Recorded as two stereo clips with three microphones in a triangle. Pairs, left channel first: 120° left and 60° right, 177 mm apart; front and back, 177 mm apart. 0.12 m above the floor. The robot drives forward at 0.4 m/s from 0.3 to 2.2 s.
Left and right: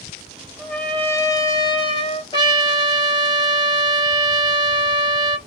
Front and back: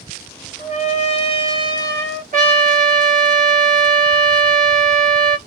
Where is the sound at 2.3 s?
170° left, 2.5 m.